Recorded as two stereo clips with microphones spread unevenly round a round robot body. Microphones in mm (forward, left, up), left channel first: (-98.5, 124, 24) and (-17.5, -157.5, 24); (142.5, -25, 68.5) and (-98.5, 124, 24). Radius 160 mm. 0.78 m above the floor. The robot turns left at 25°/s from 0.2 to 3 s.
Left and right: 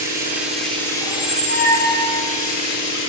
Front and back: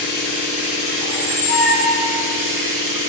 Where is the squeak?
170° left, 6.5 m; by 2.2 s 140° left, 6.5 m.